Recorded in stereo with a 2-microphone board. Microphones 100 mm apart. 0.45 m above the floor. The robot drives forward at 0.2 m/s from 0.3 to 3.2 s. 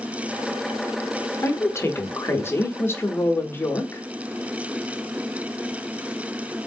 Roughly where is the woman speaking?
Left.